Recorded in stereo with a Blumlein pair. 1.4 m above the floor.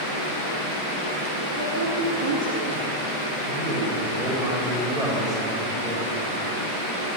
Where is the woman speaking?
55° right, 3.5 m.